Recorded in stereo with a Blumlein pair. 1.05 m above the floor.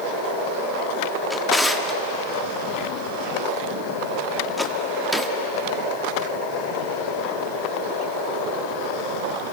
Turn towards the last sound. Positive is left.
turn(degrees=0)